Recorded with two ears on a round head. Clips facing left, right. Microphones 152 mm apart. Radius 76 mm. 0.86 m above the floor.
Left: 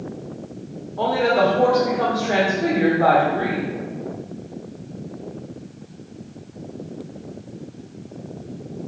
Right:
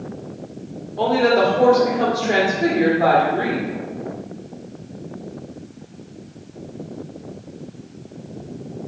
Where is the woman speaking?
30° right (ahead or behind), 2.0 m.